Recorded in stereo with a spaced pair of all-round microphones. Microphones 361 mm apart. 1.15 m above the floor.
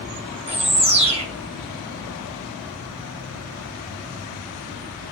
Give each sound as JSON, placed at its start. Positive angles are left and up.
{"t": 0.5, "sound": "a bird", "side_deg": -15, "distance_m": 2.5}